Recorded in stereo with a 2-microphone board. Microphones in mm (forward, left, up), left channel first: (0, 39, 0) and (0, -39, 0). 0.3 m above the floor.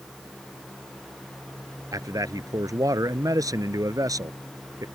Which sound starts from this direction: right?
A man speaking, at 1.9 s.